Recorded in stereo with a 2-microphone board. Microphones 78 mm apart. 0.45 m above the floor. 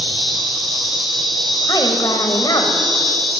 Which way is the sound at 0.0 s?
Centre (ahead or behind).